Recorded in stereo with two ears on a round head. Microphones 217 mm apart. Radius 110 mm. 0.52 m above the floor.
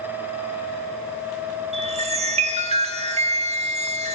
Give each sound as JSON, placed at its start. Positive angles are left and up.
{"t": 1.7, "sound": "a chime", "side_deg": -25, "distance_m": 0.8}